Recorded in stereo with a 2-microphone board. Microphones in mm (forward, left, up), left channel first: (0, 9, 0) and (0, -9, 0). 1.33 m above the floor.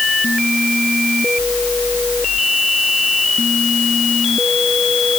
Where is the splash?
No splash in this recording.